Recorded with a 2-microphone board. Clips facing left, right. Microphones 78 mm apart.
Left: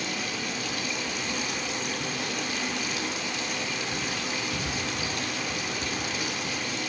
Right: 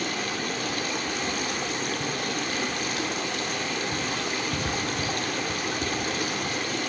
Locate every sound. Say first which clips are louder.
0.0 s running water: right 3 dB; 50° right (ahead or behind), 1.5 m